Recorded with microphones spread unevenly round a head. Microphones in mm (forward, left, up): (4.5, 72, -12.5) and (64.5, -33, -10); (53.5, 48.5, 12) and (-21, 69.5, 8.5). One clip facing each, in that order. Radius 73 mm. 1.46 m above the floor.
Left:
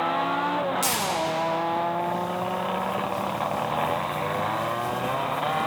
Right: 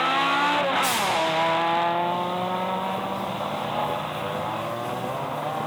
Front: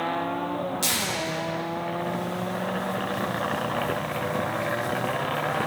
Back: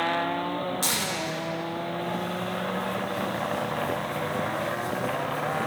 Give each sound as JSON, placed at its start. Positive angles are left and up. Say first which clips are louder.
{"t": 0.8, "sound": "tearing paper", "louder": "right 2 dB, front 1 dB", "azimuth_deg": 120, "distance_m": 5.0}